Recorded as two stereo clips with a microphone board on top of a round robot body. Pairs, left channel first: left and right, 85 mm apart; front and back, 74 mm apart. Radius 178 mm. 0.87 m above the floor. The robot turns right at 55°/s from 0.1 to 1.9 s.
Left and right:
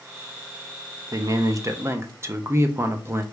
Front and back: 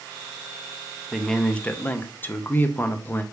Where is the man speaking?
90° right, 0.7 m; by 3.2 s 50° right, 0.7 m.